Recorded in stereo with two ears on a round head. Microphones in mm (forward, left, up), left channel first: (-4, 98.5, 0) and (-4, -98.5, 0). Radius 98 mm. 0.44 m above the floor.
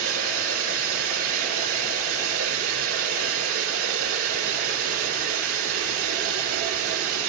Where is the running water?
70° right (ahead or behind), 5 m.